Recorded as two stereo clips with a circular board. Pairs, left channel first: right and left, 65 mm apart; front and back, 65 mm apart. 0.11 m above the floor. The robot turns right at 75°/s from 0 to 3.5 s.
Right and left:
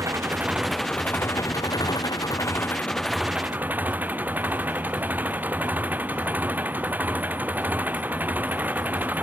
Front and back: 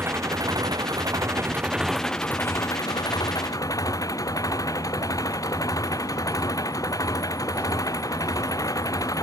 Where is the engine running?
125° left; by 9.2 s 25° left.